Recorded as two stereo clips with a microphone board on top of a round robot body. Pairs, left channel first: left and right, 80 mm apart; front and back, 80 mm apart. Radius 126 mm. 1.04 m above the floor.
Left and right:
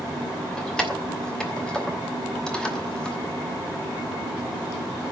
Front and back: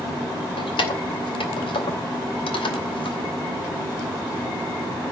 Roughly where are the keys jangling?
Ahead.